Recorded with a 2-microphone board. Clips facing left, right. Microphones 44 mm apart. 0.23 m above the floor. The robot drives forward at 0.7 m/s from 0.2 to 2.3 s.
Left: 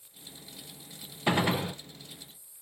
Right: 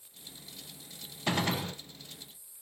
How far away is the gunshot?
About 0.6 m.